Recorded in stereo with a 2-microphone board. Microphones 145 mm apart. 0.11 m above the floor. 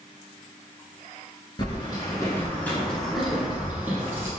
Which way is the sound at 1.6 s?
30° left (ahead or behind).